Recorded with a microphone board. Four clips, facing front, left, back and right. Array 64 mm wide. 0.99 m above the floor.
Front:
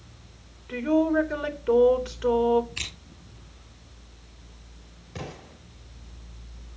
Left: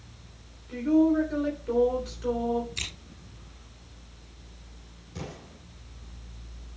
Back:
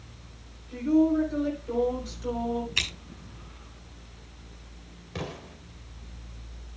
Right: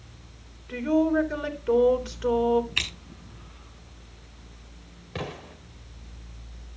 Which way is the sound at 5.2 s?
105° right.